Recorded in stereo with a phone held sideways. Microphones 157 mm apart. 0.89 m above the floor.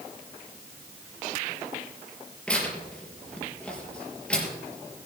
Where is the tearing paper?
5° left (ahead or behind), 4 m.